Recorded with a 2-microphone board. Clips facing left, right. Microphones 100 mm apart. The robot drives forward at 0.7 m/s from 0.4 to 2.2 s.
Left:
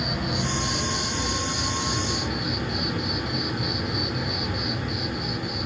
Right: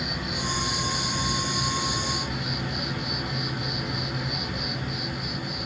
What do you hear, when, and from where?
0.0 s an insect: 45° left (ahead or behind), 1.8 m; by 5.7 s 30° left (ahead or behind), 3 m